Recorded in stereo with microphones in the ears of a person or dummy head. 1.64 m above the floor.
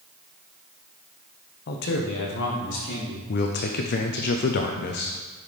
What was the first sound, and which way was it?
A man speaking, 55° left (ahead or behind).